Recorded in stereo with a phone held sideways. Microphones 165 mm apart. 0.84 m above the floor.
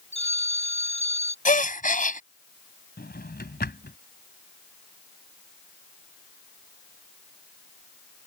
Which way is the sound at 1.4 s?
55° left (ahead or behind).